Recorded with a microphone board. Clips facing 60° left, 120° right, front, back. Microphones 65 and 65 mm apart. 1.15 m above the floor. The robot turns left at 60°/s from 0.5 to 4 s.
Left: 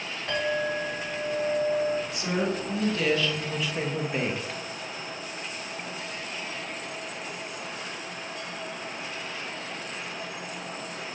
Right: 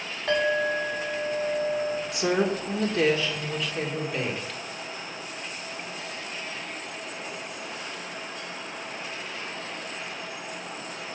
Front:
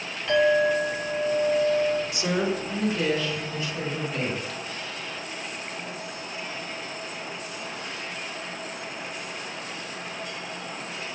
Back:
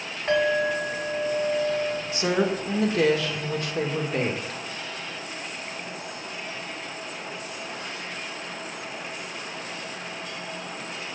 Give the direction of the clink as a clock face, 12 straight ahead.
4 o'clock.